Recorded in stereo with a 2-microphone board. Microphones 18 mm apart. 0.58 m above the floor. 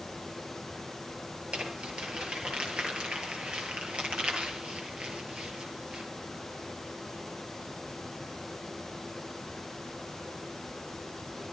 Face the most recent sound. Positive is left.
turn(degrees=-85)